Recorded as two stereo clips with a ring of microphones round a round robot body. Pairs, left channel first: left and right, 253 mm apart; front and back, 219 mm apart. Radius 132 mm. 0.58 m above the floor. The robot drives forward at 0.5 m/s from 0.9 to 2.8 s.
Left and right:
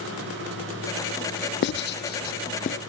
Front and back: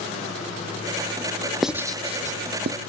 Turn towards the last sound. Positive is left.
turn(degrees=150)